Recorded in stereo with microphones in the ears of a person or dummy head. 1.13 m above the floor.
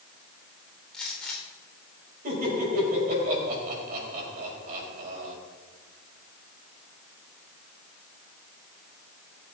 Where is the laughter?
50° right (ahead or behind), 5 m.